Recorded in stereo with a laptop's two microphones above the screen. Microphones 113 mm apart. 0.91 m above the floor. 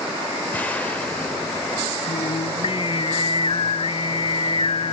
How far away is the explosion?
About 3.5 m.